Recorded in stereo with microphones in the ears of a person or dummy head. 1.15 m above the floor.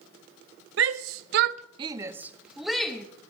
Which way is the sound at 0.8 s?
65° right (ahead or behind).